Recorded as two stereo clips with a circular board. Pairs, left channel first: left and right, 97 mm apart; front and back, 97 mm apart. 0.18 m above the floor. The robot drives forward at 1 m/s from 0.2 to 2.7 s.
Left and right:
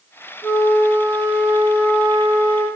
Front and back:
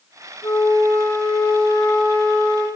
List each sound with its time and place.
0.4 s a flute: 30° left, 3 m; by 2.7 s 75° left, 1.8 m